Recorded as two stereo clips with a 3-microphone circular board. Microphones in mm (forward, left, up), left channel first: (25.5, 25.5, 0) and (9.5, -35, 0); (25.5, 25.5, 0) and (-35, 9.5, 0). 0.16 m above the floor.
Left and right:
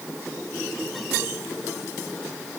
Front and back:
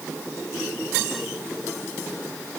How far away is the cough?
I don't hear a cough.